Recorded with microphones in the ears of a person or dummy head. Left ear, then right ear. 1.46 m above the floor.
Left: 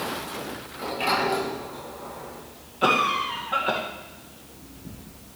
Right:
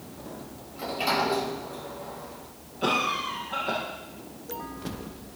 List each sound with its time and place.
0.7 s a sliding door: 5° right (ahead or behind), 5 m
2.8 s a cough: 35° left (ahead or behind), 1.7 m